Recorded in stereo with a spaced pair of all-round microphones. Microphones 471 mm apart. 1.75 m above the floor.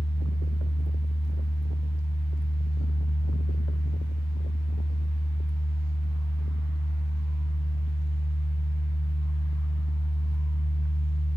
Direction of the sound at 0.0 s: 30° left (ahead or behind).